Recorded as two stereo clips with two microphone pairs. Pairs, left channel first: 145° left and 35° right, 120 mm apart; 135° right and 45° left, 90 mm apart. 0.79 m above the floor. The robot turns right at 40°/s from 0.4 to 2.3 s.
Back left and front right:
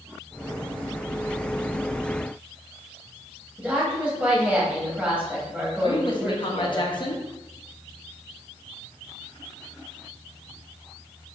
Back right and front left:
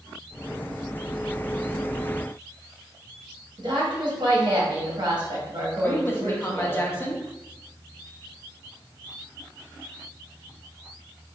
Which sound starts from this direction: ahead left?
A woman speaking, at 3.6 s.